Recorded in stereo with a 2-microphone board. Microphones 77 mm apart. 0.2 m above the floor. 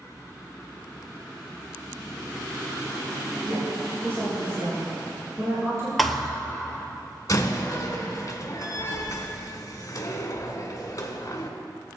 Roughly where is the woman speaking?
Right.